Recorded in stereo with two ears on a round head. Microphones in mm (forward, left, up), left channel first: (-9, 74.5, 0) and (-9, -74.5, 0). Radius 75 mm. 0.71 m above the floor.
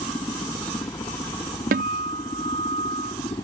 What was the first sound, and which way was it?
A helicopter, 15° left (ahead or behind).